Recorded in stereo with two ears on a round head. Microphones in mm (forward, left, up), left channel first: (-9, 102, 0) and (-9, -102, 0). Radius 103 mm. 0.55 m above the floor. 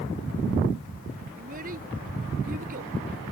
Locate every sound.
1.4 s a child speaking: 40° right (ahead or behind)